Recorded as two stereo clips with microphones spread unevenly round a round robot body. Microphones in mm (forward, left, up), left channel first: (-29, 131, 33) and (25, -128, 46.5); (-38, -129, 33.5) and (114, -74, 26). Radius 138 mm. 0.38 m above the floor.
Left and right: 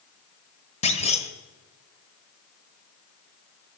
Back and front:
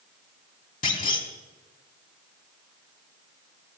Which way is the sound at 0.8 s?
165° left.